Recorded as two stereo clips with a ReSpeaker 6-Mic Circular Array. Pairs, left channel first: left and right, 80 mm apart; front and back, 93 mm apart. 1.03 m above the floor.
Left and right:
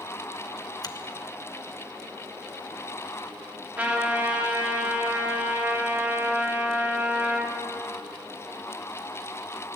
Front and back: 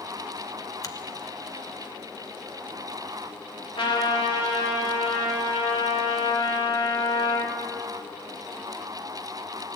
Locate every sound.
0.8 s a finger snap: 50° left, 0.9 m
3.8 s a trumpet: 20° right, 2.5 m